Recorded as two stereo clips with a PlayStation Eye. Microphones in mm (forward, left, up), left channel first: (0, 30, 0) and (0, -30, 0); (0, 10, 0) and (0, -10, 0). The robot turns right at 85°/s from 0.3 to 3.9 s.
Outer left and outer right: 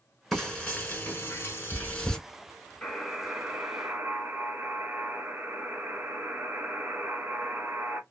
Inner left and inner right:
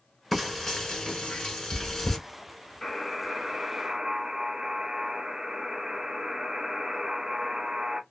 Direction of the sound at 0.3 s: 5° left (ahead or behind).